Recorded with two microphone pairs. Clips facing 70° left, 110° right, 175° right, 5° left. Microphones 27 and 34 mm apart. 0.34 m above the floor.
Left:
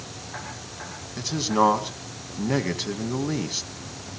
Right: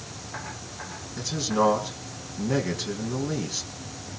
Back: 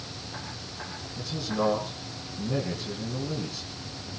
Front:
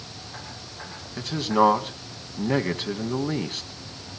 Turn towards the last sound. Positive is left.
turn(degrees=5)